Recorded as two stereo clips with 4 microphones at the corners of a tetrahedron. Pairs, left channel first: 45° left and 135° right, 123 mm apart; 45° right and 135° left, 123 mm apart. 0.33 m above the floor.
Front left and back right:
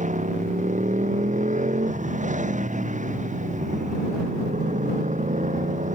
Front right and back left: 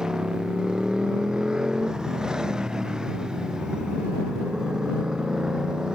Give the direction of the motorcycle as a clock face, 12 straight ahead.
5 o'clock.